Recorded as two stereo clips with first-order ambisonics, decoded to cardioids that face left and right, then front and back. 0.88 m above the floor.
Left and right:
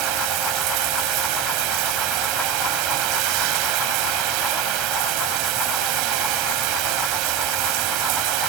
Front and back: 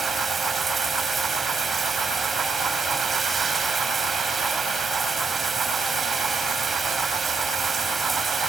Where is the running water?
110° right, 2 m.